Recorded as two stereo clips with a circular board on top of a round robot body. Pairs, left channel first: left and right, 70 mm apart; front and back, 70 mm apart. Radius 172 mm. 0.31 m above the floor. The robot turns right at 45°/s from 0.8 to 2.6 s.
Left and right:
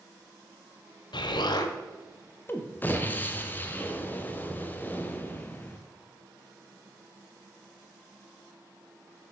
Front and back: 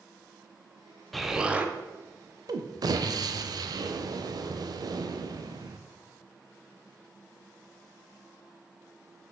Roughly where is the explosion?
Left.